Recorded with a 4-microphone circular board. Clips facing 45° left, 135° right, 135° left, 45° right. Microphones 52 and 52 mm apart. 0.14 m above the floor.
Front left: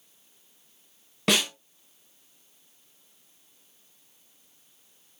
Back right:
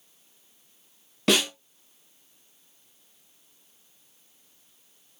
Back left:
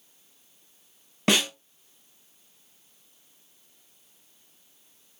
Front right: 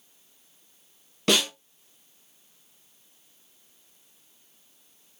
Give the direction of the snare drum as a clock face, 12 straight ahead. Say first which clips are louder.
Back right 2 dB, even; 8 o'clock.